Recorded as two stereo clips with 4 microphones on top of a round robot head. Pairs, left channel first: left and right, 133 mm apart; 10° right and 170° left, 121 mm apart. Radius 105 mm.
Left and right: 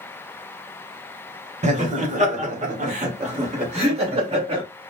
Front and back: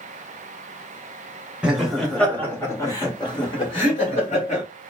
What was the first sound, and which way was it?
Laughter, 105° right.